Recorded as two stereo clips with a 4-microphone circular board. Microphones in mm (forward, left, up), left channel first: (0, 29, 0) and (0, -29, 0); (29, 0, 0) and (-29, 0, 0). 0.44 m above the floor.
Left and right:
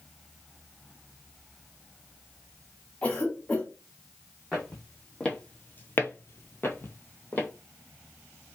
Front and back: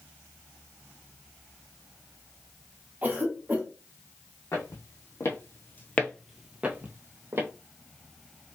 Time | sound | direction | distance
3.0 | a cough | 145° left | 1.5 m
4.5 | footsteps | 10° left | 1.4 m